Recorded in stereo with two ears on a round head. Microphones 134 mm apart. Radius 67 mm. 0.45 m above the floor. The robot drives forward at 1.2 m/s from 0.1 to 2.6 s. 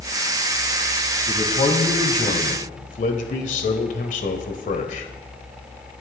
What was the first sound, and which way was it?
A man speaking, 35° left (ahead or behind).